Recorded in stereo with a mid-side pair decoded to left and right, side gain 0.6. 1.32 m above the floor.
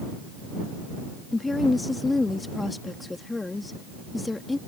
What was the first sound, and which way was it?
A woman speaking, 15° left.